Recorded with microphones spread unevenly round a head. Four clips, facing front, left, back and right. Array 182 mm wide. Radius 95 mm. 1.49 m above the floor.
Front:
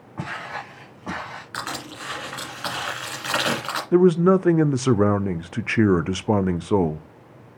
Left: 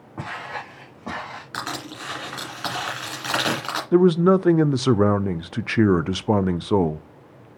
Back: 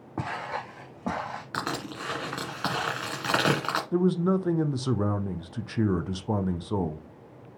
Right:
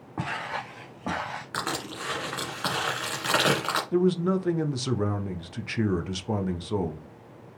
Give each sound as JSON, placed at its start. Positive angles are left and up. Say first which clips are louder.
{"t": 0.2, "sound": "footsteps", "louder": "even, even", "azimuth_deg": -165, "distance_m": 3.5}
{"t": 1.5, "sound": "crushing", "louder": "left 1 dB, even", "azimuth_deg": -165, "distance_m": 2.5}
{"t": 3.9, "sound": "a man speaking", "louder": "left 9 dB, front 10 dB", "azimuth_deg": 45, "distance_m": 0.5}